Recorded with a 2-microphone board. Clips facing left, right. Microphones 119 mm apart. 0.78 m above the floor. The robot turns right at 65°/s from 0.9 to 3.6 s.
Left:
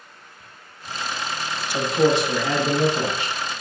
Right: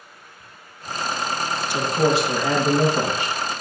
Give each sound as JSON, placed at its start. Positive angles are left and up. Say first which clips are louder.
{"t": 1.7, "sound": "a man speaking", "louder": "left 1 dB", "azimuth_deg": 165, "distance_m": 0.9}